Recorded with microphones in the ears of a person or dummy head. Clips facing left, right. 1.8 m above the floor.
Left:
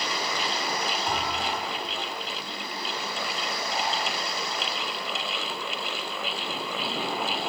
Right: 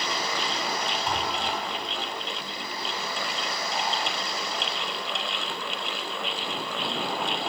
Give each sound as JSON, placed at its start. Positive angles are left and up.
{"t": 1.1, "sound": "a thud", "side_deg": -65, "distance_m": 4.5}